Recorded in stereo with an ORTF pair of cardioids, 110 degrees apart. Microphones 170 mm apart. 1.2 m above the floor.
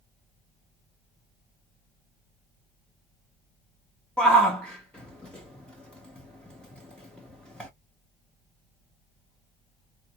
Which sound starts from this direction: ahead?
A shout, at 4.2 s.